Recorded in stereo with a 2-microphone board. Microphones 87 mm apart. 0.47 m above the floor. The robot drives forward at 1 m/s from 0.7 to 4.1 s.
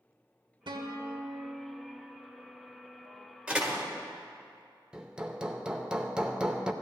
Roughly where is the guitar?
Right.